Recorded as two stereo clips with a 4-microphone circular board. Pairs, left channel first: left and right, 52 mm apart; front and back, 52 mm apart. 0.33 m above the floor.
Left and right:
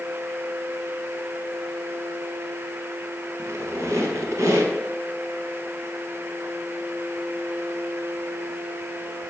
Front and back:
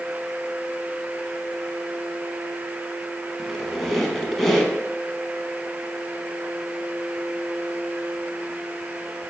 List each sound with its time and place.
3.4 s a squeak: 85° right, 0.8 m